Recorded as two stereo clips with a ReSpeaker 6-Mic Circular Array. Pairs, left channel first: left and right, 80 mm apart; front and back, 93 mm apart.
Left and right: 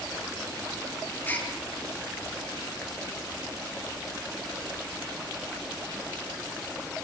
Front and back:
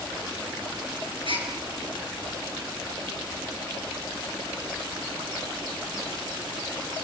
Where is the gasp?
155° left, 5.5 m.